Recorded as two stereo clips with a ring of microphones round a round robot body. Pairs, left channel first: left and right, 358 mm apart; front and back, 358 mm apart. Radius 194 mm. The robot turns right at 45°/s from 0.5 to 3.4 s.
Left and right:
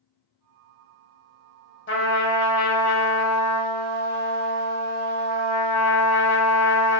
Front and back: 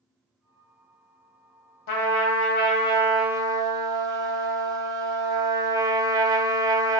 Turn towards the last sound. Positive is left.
turn(degrees=100)